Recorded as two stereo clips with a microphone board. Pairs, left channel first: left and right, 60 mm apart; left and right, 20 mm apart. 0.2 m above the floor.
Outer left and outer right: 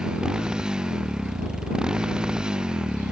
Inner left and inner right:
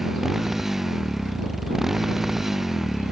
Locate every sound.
0.0 s a motorcycle: 15° right (ahead or behind)